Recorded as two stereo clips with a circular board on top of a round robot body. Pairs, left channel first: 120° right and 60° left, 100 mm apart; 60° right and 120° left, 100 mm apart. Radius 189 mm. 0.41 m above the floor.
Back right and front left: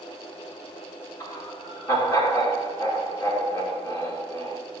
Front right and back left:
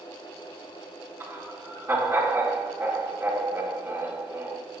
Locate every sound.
1.2 s laughter: 175° right, 7 m